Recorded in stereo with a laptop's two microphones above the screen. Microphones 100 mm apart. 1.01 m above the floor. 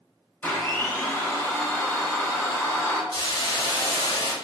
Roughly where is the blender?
Left.